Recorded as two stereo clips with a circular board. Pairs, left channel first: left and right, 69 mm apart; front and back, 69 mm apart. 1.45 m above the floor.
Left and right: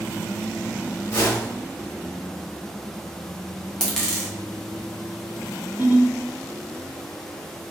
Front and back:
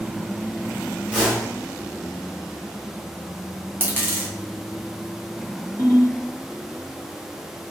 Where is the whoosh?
100° left, 1.4 m.